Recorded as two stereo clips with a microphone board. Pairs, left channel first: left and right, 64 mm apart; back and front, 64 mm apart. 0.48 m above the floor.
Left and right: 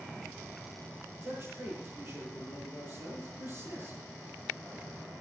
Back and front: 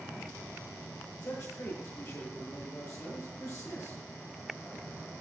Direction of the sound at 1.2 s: 140° right.